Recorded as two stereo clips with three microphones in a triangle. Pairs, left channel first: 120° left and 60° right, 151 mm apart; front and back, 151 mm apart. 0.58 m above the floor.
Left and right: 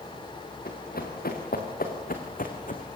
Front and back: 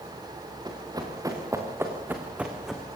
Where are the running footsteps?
115° left, 5 m; by 2.9 s 90° left, 3 m.